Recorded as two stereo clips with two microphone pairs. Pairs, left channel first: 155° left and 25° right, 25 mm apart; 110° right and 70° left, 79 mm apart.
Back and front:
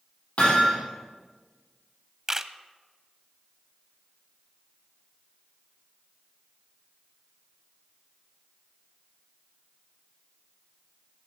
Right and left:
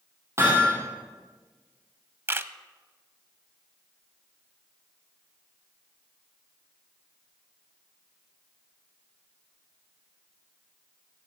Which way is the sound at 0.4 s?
120° left.